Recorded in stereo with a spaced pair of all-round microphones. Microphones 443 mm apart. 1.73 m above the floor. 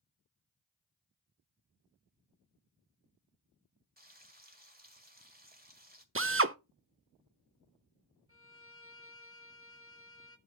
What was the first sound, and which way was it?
Frying, 20° right (ahead or behind).